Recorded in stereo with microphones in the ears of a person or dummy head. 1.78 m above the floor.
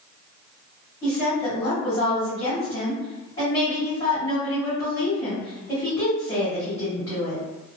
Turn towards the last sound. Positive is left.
turn(degrees=25)  # may be behind; listen again after turning